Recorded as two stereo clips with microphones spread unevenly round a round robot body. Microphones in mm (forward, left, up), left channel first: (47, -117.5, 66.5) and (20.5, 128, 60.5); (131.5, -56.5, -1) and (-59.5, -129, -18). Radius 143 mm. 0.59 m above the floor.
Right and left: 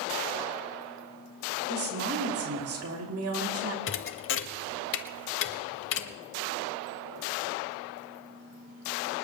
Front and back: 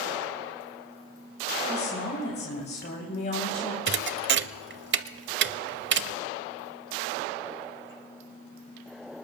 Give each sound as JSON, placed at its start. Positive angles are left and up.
{"t": 1.7, "sound": "a woman speaking", "azimuth_deg": 75, "distance_m": 3.0}
{"t": 3.9, "sound": "a thud", "azimuth_deg": -130, "distance_m": 0.6}